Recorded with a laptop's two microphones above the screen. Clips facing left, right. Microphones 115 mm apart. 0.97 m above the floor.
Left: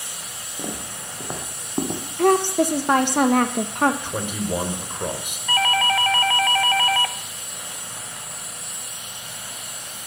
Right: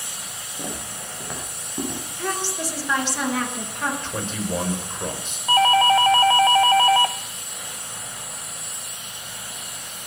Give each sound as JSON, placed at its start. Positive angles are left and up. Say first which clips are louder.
{"t": 0.6, "sound": "footsteps", "louder": "left 1 dB", "side_deg": 10, "distance_m": 4.0}
{"t": 2.2, "sound": "a woman speaking", "louder": "left 12 dB", "side_deg": 50, "distance_m": 1.0}
{"t": 4.0, "sound": "a man speaking", "louder": "left 1 dB", "side_deg": 15, "distance_m": 4.5}
{"t": 5.5, "sound": "a doorbell", "louder": "right 5 dB", "side_deg": -25, "distance_m": 0.7}